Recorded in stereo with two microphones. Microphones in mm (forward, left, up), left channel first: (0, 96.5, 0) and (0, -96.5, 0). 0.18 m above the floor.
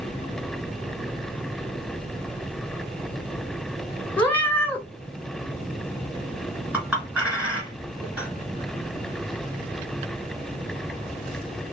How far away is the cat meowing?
About 0.8 m.